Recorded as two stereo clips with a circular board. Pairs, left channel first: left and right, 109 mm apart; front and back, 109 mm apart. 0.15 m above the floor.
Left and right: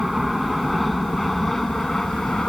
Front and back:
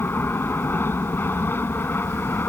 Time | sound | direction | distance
0.0 | an aircraft | 5° right | ?